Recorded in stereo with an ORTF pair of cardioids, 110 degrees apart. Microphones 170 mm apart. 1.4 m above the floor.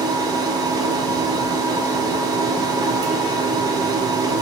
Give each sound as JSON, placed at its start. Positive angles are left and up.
{"t": 0.0, "sound": "a machine running", "azimuth_deg": -25, "distance_m": 0.7}